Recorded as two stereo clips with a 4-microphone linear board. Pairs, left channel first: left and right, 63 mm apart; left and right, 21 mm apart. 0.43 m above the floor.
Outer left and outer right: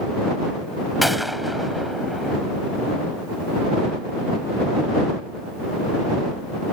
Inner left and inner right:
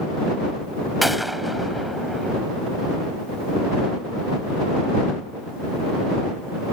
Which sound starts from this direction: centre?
A gunshot, at 1.0 s.